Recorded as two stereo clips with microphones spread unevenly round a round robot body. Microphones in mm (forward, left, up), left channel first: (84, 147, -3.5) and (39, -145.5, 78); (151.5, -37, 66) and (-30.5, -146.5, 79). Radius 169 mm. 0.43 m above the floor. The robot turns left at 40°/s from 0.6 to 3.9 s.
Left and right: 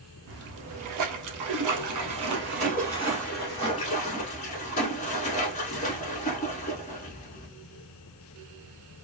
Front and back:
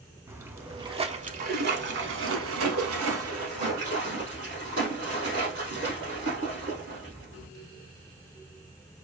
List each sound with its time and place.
0.3 s a splash: 70° right, 0.6 m; by 7.5 s 155° left, 0.6 m